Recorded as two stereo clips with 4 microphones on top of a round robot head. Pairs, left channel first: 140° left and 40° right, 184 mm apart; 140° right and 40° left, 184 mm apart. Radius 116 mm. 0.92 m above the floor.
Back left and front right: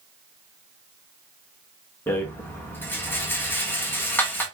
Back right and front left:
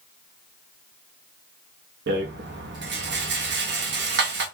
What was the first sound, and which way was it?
A rattle, 60° left.